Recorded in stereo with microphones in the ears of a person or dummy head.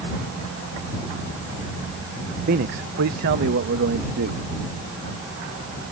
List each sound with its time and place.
2.5 s a man speaking: 45° right (ahead or behind); by 4.4 s 60° right (ahead or behind)